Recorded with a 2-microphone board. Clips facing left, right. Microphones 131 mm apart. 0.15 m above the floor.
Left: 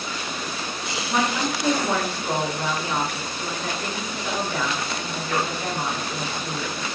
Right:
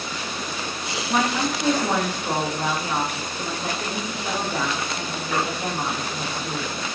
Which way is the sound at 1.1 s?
15° right (ahead or behind).